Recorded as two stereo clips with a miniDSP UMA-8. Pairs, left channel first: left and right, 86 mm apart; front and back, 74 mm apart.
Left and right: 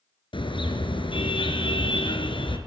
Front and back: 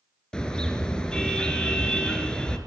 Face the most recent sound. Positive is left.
turn(degrees=80)